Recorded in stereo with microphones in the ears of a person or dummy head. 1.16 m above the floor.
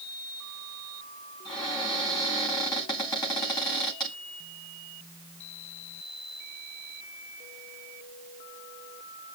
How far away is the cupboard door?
About 3.5 m.